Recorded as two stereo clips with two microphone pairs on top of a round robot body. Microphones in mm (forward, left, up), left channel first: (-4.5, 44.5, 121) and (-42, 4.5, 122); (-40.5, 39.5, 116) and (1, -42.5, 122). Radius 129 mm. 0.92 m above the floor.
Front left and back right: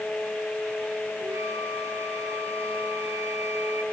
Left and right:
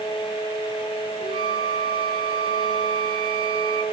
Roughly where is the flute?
Right.